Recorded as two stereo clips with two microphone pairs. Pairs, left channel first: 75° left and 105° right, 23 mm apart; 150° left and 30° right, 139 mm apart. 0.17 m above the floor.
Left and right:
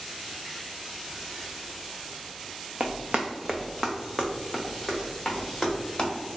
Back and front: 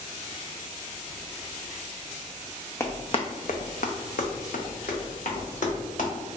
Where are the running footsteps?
135° right, 0.5 m; by 6.1 s 130° left, 1.9 m.